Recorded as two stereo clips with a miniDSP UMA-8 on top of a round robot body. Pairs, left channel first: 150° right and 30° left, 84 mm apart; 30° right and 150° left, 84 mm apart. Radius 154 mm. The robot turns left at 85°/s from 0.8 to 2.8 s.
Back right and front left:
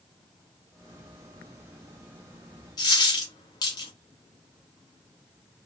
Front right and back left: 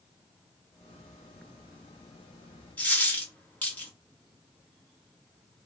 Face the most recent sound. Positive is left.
turn(degrees=-105)